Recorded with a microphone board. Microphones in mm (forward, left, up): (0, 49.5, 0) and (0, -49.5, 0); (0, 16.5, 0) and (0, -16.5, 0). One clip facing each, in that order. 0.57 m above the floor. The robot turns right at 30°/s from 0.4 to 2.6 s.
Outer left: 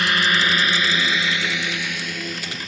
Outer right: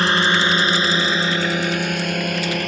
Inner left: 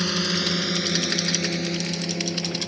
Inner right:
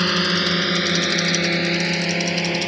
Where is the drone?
35° right (ahead or behind); by 2.7 s 65° right (ahead or behind).